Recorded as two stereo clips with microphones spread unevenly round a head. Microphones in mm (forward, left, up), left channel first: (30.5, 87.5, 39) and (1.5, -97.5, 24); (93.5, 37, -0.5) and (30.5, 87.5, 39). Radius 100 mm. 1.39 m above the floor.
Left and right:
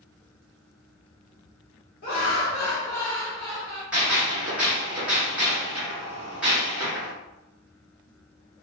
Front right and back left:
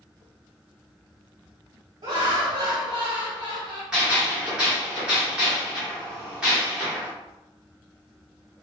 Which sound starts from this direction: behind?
A gunshot, at 3.9 s.